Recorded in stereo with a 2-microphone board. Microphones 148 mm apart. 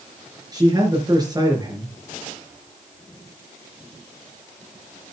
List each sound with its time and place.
0.5 s a man speaking: 25° right (ahead or behind), 4.5 m